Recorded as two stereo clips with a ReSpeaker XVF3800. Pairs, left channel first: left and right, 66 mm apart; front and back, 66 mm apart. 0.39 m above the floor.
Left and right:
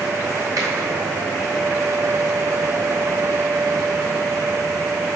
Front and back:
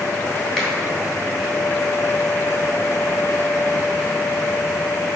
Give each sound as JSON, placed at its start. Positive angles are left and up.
{"t": 0.6, "sound": "a finger snap", "azimuth_deg": -75, "distance_m": 2.5}